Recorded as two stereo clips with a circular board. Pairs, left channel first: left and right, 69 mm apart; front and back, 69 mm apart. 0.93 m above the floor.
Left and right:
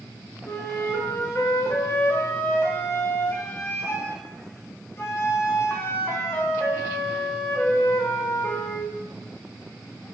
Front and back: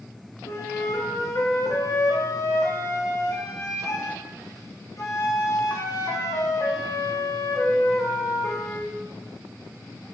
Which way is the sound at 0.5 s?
40° left.